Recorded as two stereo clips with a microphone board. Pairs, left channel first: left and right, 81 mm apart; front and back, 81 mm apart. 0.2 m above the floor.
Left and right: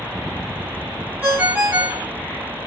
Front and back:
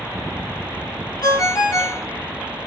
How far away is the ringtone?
About 1.3 m.